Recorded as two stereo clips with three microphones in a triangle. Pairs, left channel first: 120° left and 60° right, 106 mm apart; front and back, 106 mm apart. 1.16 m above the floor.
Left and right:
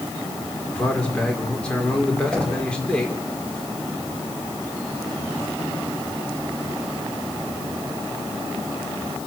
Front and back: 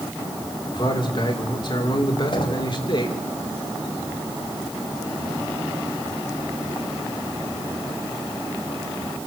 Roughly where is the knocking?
Ahead left.